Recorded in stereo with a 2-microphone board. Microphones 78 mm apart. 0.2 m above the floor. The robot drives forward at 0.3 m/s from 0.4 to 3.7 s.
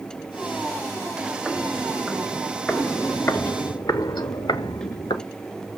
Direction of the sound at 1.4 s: 5° right (ahead or behind).